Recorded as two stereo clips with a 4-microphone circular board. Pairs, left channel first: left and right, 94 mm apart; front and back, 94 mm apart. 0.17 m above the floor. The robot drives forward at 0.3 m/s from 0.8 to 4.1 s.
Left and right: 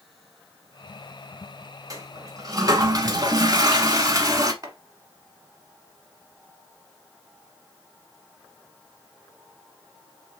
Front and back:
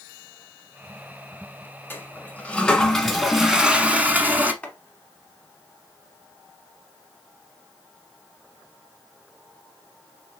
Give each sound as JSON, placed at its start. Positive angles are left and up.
{"t": 1.9, "sound": "a toilet flushing", "azimuth_deg": -60, "distance_m": 1.0}
{"t": 4.6, "sound": "chopping", "azimuth_deg": -70, "distance_m": 1.2}